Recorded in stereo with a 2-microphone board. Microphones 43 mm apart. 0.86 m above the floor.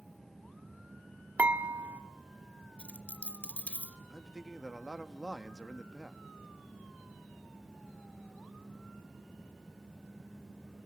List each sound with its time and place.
1.4 s dishes clattering: 45° right (ahead or behind), 1.0 m
2.8 s a dropped coin: 35° left (ahead or behind), 0.8 m
4.1 s a man speaking: 5° right (ahead or behind), 0.9 m